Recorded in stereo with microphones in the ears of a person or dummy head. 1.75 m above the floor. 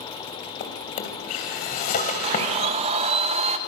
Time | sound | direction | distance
0.6 | a drawer | 50° left (ahead or behind) | 2.5 m
2.2 | a blender | 35° right (ahead or behind) | 1.3 m